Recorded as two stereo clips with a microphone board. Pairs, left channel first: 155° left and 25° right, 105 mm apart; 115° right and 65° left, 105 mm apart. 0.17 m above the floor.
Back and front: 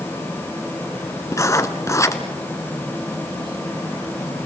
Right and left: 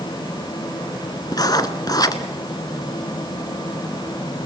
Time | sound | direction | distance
1.3 | writing | 150° right | 1.3 m